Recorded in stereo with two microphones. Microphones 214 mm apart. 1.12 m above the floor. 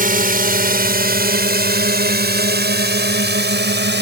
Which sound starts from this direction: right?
A drone, at 0.0 s.